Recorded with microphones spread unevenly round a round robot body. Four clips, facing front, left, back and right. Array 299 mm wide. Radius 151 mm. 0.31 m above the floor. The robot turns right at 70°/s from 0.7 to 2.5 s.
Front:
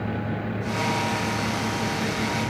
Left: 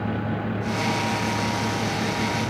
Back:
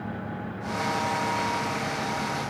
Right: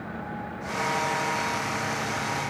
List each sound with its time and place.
Only background noise.